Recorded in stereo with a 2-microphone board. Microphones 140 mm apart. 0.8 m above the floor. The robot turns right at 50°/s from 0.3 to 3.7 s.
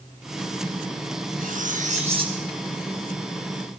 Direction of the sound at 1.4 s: 80° right.